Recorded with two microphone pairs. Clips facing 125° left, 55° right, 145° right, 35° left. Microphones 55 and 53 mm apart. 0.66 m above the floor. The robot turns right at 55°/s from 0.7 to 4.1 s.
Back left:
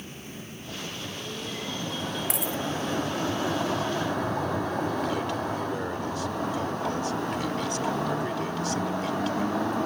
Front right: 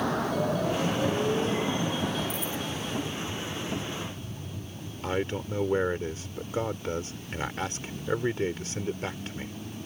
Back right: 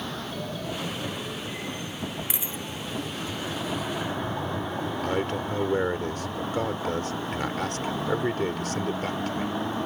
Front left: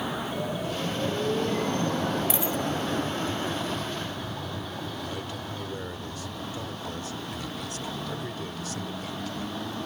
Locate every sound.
0.0 s a vehicle: 40° right; by 9.9 s 145° left
2.3 s a dropped coin: 140° left; by 2.6 s 155° left
5.0 s a man speaking: 110° right